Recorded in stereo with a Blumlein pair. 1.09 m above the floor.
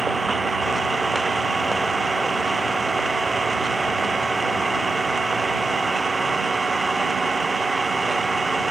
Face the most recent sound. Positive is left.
turn(degrees=-10)